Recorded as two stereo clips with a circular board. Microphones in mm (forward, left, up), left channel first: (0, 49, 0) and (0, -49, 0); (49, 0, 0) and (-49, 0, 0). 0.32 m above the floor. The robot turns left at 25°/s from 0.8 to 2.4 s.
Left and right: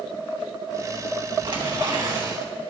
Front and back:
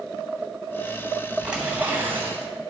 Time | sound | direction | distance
1.4 | tearing paper | 100° right | 2.5 m